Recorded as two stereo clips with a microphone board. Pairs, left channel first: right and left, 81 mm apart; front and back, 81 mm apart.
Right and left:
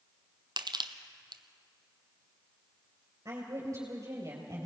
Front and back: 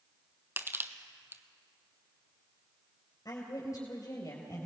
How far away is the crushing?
About 0.9 m.